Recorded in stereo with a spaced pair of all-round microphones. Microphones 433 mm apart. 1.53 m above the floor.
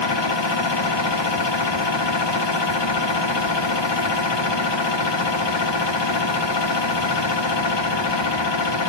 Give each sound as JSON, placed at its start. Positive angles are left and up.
{"t": 0.0, "sound": "a machine running", "side_deg": 75, "distance_m": 1.1}